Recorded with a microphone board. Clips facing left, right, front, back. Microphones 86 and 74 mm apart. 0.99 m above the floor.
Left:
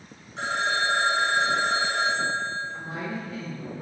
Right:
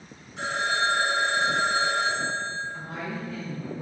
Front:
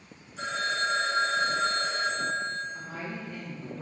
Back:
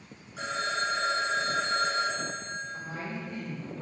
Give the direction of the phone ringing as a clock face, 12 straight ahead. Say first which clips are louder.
Even, front 1 dB; 7 o'clock.